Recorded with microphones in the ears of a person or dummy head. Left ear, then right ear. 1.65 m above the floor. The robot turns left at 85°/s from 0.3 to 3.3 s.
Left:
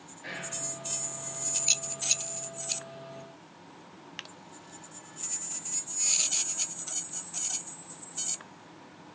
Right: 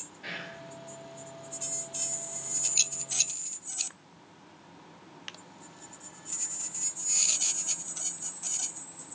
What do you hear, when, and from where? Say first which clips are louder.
0.2 s whispering: even; 50° right (ahead or behind), 1.1 m; by 0.6 s 75° right (ahead or behind), 1.1 m